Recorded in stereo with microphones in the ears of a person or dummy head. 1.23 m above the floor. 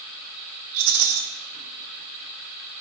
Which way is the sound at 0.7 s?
70° right (ahead or behind).